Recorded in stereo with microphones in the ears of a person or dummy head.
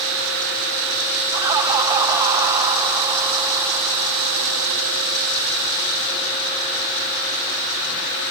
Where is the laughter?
20° right (ahead or behind), 3.5 m.